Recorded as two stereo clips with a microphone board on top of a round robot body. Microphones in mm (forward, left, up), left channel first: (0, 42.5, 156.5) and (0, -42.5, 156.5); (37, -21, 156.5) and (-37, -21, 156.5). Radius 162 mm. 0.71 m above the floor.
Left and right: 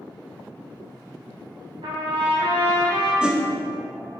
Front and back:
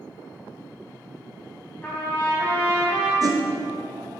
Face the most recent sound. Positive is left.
turn(degrees=-170)